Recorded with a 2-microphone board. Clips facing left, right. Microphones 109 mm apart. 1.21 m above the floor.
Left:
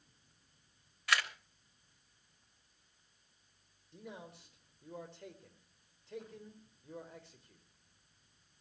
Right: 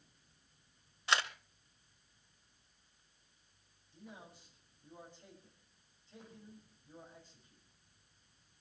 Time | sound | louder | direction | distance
1.1 | a camera shutter | right 1 dB | 25° right (ahead or behind) | 1.1 m
3.9 | a man speaking | left 5 dB | 80° left | 4.5 m